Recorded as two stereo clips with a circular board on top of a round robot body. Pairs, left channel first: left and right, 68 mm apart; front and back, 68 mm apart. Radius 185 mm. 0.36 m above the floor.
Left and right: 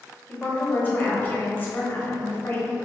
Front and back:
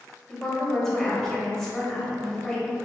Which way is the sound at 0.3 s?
75° left.